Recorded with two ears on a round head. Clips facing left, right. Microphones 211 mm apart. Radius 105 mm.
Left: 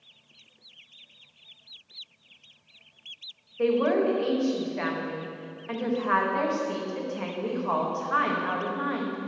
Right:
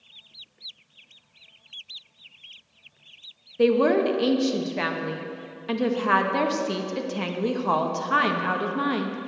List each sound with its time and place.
3.6 s a woman speaking: 55° right (ahead or behind), 1.2 m